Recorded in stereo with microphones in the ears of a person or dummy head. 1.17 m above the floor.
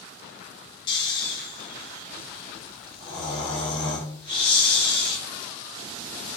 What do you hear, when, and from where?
0.9 s snoring: 30° left (ahead or behind), 1.3 m